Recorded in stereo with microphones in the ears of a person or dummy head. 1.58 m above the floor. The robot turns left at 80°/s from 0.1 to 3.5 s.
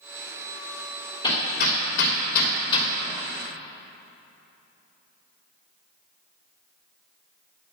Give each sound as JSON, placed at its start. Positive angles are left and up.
{"t": 1.2, "sound": "hammering", "side_deg": 25, "distance_m": 2.5}